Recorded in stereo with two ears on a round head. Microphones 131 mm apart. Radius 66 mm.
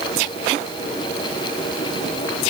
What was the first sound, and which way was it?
Only background noise.